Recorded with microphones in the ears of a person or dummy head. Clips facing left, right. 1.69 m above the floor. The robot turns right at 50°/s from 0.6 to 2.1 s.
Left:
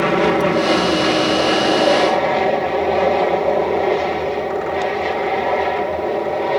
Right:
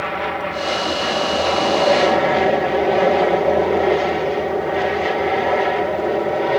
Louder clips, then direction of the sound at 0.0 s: Left 9 dB; 105° left.